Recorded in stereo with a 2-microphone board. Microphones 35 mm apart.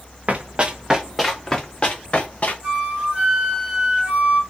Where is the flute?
25° right (ahead or behind), 2 m.